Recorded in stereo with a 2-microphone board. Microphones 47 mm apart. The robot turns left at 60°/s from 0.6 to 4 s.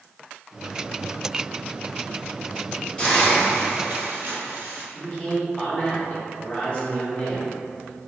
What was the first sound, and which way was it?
A hiss, 25° left.